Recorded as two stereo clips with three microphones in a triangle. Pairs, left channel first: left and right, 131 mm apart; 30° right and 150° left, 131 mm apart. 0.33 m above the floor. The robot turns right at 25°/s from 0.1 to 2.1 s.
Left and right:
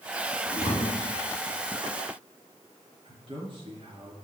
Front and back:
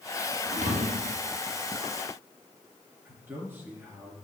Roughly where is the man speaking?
Behind right.